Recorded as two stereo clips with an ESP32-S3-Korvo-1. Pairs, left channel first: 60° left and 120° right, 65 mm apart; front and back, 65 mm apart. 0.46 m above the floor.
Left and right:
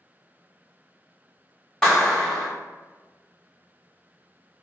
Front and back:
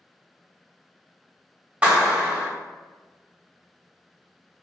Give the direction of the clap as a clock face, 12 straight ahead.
8 o'clock.